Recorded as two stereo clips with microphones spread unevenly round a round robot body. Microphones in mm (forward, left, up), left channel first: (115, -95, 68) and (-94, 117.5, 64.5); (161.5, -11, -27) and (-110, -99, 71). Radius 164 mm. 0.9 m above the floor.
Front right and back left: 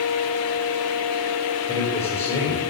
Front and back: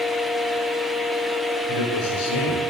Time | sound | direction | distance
1.7 | a man speaking | 30° left | 2.5 m